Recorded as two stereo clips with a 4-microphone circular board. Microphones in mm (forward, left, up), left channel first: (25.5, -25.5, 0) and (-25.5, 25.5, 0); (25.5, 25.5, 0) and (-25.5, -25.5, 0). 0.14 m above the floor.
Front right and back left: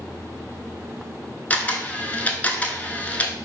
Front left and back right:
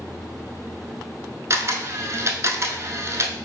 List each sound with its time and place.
1.5 s a camera shutter: 110° right, 0.6 m